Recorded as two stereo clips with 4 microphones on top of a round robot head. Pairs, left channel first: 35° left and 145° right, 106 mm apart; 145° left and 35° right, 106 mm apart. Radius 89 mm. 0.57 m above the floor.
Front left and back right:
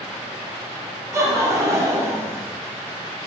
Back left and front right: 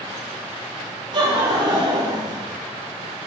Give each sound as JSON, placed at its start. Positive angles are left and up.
{"t": 1.1, "sound": "laughter", "azimuth_deg": -80, "distance_m": 2.0}